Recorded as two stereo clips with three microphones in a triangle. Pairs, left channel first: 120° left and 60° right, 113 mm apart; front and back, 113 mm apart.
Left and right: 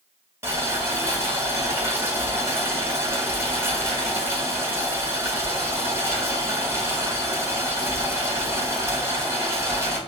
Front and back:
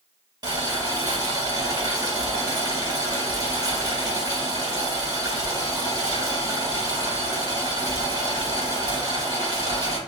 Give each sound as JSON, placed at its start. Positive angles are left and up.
{"t": 0.4, "sound": "boiling", "azimuth_deg": -125, "distance_m": 1.3}